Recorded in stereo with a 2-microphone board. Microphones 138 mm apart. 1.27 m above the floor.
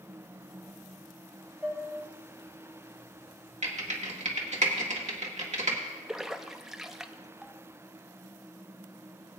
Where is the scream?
No scream in this recording.